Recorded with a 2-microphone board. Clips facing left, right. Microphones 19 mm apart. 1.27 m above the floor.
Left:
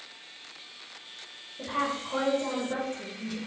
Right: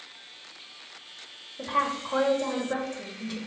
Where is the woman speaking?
25° right (ahead or behind), 1.6 m.